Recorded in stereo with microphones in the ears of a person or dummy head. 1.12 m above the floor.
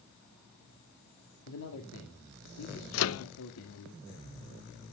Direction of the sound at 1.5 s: 75° left (ahead or behind).